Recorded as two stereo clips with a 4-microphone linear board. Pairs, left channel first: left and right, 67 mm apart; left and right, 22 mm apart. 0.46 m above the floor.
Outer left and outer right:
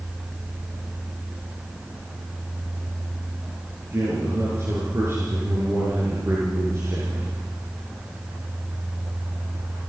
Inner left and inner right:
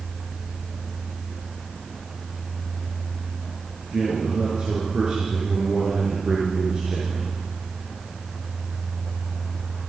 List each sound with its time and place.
3.9 s a man speaking: 40° right (ahead or behind), 5.5 m